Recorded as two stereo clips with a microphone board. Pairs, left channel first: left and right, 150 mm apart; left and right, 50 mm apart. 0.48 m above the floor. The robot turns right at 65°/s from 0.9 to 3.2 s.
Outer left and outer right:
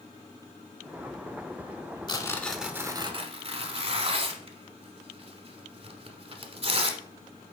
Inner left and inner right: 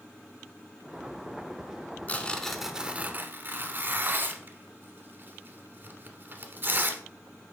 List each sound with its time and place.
2.1 s tearing paper: 30° left (ahead or behind), 1.0 m; by 7.0 s 40° right (ahead or behind), 1.0 m